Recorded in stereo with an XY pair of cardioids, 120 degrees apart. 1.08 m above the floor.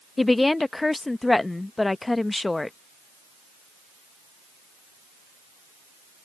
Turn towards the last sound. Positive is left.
turn(degrees=15)